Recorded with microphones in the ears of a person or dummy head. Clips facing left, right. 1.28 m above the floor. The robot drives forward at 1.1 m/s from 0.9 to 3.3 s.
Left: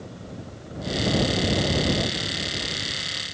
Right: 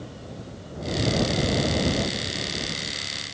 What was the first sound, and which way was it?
Only background noise.